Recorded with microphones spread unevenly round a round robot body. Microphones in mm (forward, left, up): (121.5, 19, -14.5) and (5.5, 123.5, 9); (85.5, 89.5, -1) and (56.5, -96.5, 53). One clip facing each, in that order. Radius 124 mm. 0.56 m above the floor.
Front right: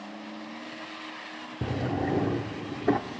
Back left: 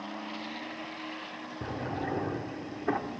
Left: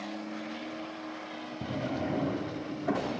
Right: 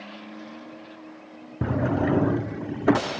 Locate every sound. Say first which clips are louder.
1.6 s a drawer: front right 6 dB, right 9 dB; 90° right, 0.5 m